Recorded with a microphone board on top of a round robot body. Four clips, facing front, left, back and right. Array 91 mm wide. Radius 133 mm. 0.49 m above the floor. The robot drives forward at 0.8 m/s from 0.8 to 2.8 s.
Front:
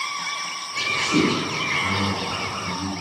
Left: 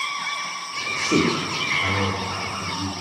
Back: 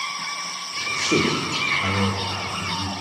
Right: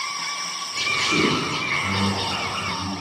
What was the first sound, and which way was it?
A man speaking, 140° left.